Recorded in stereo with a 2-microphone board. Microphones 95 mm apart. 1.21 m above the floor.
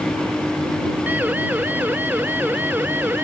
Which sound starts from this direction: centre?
A siren, at 1.1 s.